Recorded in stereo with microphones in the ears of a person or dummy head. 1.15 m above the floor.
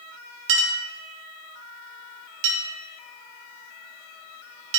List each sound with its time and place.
0.5 s a clink: 70° right (ahead or behind), 1.6 m